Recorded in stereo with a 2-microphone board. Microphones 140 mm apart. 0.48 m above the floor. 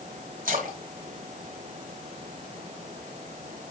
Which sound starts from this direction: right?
A splash, at 0.5 s.